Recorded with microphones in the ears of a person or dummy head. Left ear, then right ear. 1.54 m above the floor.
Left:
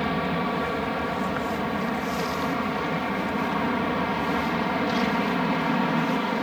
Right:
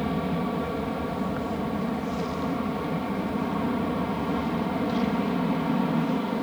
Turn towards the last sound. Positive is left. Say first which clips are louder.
# left 3 dB
turn(degrees=60)  # may be behind; listen again after turning